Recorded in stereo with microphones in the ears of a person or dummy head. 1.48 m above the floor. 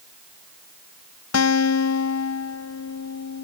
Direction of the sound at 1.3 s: 80° left.